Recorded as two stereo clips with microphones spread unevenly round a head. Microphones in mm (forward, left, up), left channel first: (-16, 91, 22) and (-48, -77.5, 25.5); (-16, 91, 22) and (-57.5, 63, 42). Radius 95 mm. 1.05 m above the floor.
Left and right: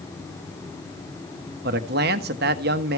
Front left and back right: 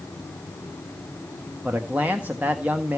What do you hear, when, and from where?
1.6 s a man speaking: 70° right, 1.2 m